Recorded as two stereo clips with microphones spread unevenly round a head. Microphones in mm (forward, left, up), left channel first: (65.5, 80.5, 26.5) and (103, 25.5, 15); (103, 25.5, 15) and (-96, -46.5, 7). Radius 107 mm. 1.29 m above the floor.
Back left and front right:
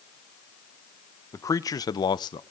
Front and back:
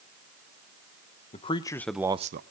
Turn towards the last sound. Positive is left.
turn(degrees=155)